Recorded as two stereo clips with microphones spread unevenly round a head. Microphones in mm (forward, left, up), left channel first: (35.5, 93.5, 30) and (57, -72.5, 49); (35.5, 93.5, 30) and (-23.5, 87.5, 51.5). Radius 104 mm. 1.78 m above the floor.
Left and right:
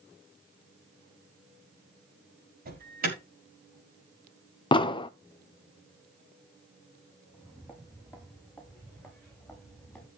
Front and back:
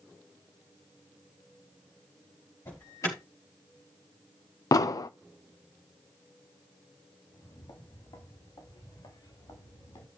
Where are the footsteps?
5° right, 6.5 m; by 10.1 s 10° left, 8.5 m.